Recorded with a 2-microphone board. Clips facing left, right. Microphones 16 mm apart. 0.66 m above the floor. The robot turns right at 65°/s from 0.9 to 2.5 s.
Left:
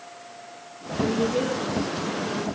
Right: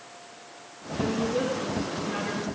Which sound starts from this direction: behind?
A woman speaking, at 1.0 s.